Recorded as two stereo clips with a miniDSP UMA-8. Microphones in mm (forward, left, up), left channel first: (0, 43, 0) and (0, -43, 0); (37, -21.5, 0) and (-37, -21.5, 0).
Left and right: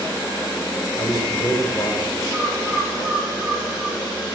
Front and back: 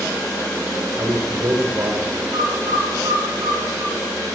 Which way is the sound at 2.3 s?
175° right.